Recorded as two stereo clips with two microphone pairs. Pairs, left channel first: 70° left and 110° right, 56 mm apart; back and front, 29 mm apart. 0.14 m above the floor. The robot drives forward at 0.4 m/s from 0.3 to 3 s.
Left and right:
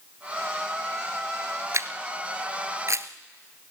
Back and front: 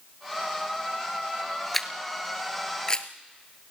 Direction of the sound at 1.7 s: 105° right.